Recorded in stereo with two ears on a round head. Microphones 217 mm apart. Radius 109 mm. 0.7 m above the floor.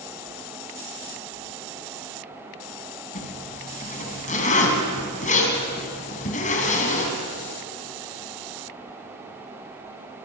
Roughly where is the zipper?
Left.